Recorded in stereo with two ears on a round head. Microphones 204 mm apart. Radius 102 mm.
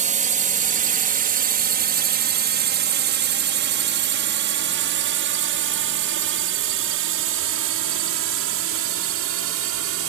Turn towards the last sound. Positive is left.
turn(degrees=-75)  # may be behind; listen again after turning